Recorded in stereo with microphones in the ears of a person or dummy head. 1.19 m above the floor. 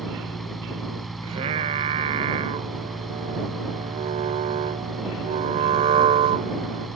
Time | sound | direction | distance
0.0 | a fan | 5° left (ahead or behind) | ?
1.2 | singing | 30° right (ahead or behind) | ?